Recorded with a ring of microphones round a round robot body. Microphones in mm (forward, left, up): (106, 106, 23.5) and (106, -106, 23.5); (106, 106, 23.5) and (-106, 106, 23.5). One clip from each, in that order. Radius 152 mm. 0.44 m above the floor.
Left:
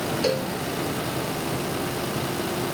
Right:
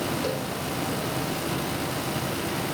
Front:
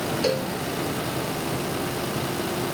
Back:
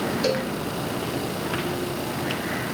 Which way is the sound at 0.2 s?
80° left.